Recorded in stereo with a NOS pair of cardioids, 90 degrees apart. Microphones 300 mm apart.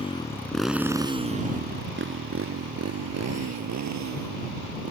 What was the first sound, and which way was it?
A motorcycle, 20° left.